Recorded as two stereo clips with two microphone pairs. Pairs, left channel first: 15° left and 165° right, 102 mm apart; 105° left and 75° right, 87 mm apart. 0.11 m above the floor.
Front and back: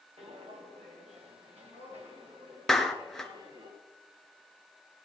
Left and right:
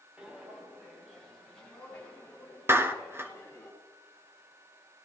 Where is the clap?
70° right, 1.1 m.